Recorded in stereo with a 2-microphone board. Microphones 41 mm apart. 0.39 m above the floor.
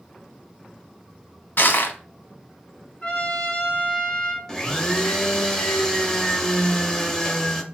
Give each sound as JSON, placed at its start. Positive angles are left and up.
{"t": 1.6, "sound": "crushing", "side_deg": 60, "distance_m": 0.8}
{"t": 3.0, "sound": "a trumpet", "side_deg": 25, "distance_m": 1.2}
{"t": 4.5, "sound": "a blender", "side_deg": 15, "distance_m": 0.6}